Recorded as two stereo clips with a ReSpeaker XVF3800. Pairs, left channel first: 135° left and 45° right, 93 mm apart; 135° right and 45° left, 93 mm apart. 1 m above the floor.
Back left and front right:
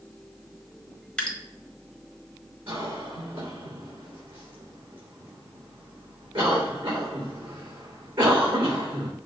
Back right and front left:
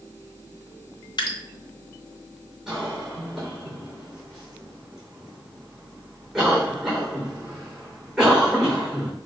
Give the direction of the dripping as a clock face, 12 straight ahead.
5 o'clock.